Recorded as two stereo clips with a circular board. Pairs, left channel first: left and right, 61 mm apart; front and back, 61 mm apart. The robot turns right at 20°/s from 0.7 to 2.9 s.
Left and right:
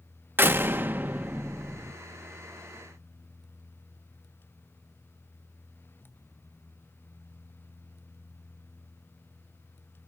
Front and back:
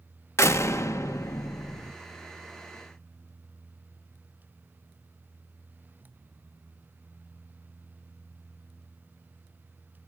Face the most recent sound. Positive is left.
turn(degrees=5)